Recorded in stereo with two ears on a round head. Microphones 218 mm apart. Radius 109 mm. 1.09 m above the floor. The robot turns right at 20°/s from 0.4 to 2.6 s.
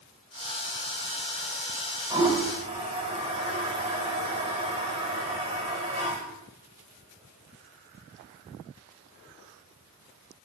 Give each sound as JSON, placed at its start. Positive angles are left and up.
{"t": 2.1, "sound": "a toilet flushing", "side_deg": -15, "distance_m": 7.5}